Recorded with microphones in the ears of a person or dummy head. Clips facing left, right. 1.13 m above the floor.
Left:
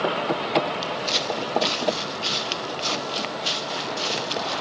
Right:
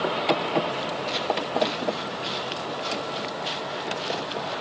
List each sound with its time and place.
0.8 s footsteps: 65° left (ahead or behind)